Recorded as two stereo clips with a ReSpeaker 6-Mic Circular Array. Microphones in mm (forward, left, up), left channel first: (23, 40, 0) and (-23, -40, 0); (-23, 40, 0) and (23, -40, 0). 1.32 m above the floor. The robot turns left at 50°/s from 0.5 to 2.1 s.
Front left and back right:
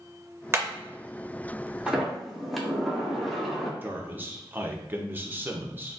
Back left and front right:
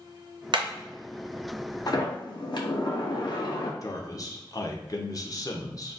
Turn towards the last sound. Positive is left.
turn(degrees=170)